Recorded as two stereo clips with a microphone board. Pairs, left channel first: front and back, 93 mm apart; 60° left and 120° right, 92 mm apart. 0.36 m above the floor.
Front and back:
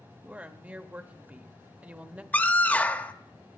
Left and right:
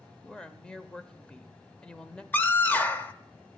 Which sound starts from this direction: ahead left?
A scream, at 2.3 s.